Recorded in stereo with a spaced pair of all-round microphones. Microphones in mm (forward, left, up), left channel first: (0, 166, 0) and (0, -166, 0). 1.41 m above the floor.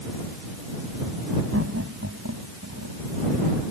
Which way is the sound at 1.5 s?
45° right (ahead or behind).